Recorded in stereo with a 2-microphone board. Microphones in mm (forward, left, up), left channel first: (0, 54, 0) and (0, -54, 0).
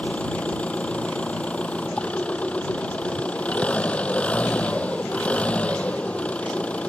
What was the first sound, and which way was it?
An engine running, 10° left (ahead or behind).